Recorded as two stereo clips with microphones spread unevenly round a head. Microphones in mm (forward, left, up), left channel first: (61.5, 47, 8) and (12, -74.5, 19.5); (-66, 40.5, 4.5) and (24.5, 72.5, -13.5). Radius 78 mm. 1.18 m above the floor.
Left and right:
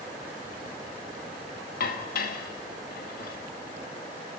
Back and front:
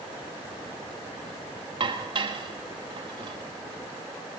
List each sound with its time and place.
1.8 s dishes clattering: 60° left, 1.0 m